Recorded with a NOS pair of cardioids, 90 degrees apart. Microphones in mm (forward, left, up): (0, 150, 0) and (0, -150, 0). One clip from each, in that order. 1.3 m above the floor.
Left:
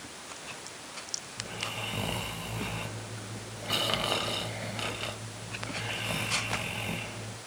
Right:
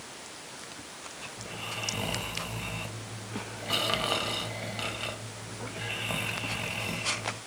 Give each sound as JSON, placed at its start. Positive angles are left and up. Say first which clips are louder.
{"t": 1.4, "sound": "snoring", "louder": "even", "azimuth_deg": 0, "distance_m": 0.5}